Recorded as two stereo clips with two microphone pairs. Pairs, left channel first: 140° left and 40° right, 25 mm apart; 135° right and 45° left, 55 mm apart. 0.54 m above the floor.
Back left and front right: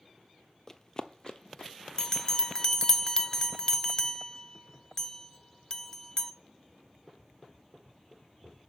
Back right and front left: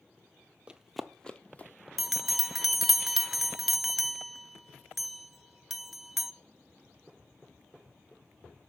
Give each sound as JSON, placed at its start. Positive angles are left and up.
{"t": 0.7, "sound": "running footsteps", "azimuth_deg": 100, "distance_m": 0.5}
{"t": 2.0, "sound": "a bell", "azimuth_deg": 135, "distance_m": 0.5}